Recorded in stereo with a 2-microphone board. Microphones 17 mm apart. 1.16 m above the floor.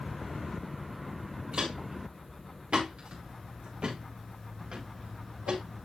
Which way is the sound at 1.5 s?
65° right (ahead or behind).